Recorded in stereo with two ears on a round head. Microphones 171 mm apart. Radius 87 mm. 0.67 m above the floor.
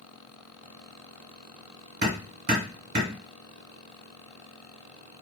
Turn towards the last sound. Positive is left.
turn(degrees=-40)  # may be behind; listen again after turning